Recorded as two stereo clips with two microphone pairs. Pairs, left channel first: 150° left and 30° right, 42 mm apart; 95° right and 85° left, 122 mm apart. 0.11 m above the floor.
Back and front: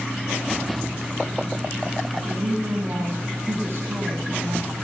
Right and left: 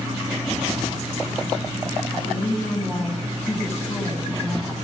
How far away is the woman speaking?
About 8.5 m.